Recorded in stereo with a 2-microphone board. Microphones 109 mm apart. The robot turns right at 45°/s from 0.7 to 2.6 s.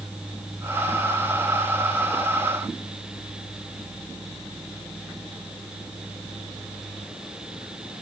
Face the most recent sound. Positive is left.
No sound to turn to.